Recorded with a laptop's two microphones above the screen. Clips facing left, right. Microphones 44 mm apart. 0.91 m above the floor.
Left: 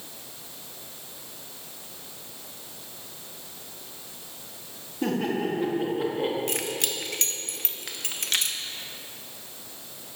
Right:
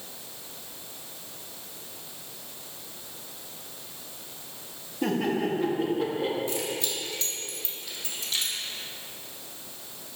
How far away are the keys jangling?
About 0.8 m.